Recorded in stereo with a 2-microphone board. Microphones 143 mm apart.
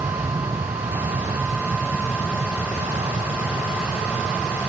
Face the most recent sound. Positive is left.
turn(degrees=-30)  # may be behind; listen again after turning